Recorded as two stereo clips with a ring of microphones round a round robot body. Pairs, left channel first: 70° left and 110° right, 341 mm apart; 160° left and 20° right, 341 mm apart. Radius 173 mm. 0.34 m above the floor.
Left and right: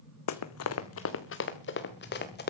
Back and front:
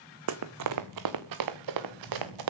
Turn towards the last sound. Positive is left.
turn(degrees=5)